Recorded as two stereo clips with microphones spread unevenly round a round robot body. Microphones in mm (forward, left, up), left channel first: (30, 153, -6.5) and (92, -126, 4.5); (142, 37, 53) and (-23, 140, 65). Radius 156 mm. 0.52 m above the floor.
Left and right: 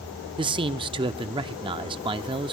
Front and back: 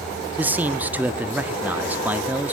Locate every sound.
0.4 s a man speaking: 135° right, 0.7 m